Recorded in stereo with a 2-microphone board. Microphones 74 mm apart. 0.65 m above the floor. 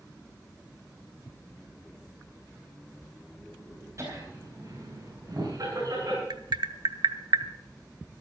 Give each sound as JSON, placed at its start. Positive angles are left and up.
{"t": 4.0, "sound": "laughter", "side_deg": -40, "distance_m": 4.0}
{"t": 6.3, "sound": "tapping", "side_deg": -70, "distance_m": 0.7}